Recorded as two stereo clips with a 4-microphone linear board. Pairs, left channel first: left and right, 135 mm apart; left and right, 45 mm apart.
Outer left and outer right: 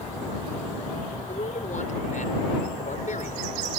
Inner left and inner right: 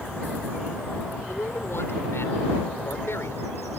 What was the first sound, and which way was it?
A man speaking, 70° left (ahead or behind).